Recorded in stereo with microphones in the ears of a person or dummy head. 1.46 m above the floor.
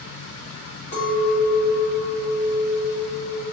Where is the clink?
55° left (ahead or behind), 2.0 m.